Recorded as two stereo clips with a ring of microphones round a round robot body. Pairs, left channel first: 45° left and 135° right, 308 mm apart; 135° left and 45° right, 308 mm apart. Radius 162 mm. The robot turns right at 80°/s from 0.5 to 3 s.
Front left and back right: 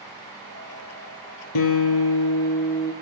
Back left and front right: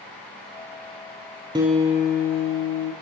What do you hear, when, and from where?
1.6 s a guitar: 30° left, 1.9 m; by 2.9 s 140° left, 1.9 m